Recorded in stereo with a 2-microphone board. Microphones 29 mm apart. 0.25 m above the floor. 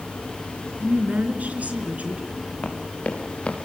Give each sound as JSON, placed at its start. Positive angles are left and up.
{"t": 0.8, "sound": "a woman speaking", "side_deg": -60, "distance_m": 4.0}
{"t": 2.6, "sound": "running footsteps", "side_deg": 50, "distance_m": 4.5}